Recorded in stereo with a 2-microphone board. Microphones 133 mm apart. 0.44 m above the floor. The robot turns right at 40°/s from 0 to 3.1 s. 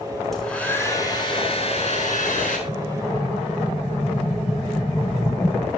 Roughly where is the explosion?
Left.